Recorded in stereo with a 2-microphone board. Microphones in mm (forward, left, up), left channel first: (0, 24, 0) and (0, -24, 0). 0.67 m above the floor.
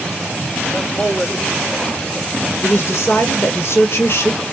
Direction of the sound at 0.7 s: 35° left (ahead or behind).